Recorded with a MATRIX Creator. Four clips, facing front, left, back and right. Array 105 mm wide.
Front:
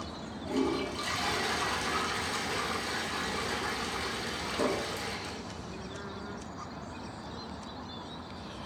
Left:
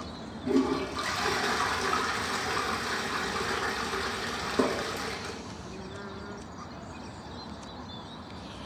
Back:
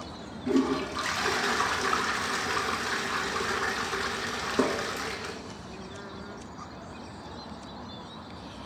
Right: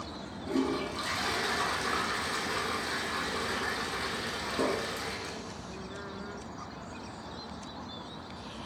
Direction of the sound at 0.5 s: 160° left.